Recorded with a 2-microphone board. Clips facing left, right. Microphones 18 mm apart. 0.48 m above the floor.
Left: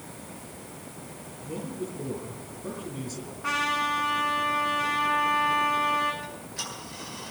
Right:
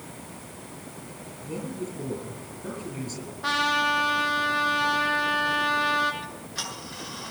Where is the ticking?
80° right, 7.5 m.